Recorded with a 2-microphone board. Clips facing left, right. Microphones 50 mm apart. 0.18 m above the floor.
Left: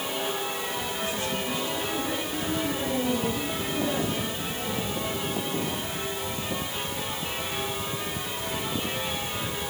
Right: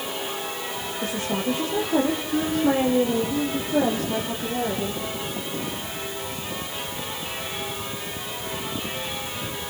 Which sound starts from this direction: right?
A woman speaking, at 1.0 s.